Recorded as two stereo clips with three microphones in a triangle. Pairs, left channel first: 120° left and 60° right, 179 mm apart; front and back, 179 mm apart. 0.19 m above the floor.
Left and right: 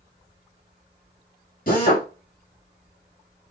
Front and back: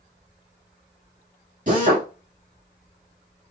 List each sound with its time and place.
1.7 s a drill: 145° left, 2 m